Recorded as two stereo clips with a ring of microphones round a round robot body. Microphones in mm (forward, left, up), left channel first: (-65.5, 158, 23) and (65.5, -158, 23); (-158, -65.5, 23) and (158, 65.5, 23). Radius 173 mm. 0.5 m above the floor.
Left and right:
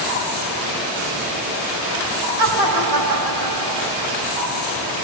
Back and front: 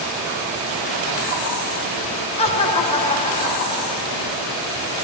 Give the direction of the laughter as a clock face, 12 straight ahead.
3 o'clock.